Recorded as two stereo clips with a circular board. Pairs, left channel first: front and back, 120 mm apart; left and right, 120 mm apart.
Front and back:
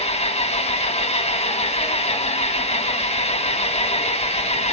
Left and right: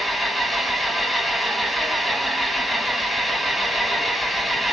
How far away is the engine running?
About 1.6 m.